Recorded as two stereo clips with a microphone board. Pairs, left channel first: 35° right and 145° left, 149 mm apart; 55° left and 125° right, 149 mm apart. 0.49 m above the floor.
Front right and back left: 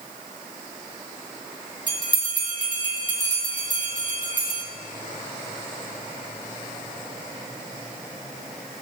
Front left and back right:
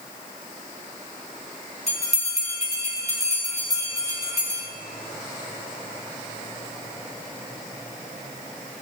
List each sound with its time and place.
1.9 s a bell: 90° left, 4.5 m